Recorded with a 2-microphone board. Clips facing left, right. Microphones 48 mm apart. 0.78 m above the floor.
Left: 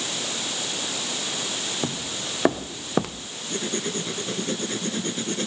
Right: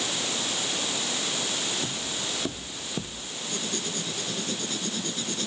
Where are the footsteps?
75° left (ahead or behind); by 3.3 s 70° left (ahead or behind).